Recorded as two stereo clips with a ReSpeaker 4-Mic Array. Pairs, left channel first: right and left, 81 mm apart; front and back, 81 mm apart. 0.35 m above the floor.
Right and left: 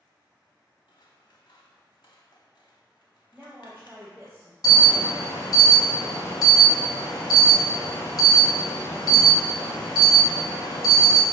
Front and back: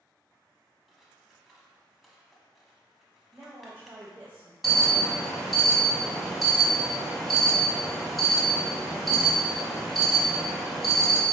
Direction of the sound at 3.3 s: 145° left.